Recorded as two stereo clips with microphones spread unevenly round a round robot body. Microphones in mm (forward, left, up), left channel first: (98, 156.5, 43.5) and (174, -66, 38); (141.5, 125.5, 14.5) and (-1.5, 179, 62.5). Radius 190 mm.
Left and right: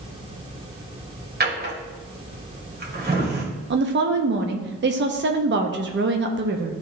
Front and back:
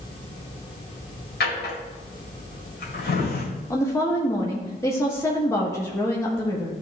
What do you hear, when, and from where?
1.4 s a drawer: 20° right, 1.8 m
3.7 s a woman speaking: 65° right, 0.7 m